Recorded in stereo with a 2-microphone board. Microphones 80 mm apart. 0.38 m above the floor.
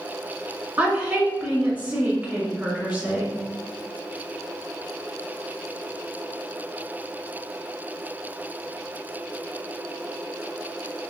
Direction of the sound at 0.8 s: 15° right (ahead or behind).